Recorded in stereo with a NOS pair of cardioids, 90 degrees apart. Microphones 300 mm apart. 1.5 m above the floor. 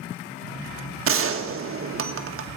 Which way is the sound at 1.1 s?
45° right.